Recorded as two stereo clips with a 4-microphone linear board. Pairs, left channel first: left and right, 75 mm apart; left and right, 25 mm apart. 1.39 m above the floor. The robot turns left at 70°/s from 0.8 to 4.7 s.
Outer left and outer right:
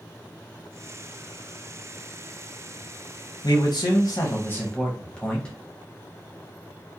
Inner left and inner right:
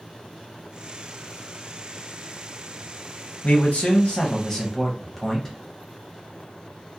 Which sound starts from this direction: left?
A man speaking, at 3.4 s.